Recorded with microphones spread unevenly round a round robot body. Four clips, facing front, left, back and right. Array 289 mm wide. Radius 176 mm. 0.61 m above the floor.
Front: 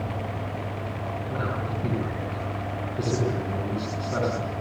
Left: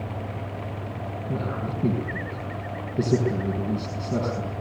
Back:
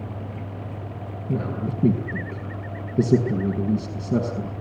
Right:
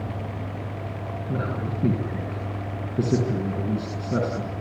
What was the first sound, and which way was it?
A man speaking, 165° right.